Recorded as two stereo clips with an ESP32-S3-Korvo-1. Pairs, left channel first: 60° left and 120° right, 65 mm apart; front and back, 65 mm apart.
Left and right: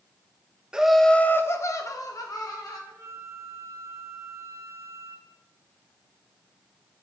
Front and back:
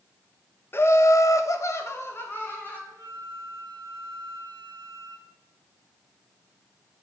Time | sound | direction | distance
0.7 | laughter | 45° right | 0.6 m
2.9 | a flute | 160° right | 2.5 m